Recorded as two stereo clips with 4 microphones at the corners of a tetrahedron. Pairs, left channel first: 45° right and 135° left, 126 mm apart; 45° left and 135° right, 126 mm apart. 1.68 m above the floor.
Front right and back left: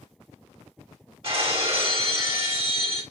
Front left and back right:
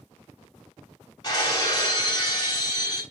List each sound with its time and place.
1.2 s breaking glass: 95° left, 2.5 m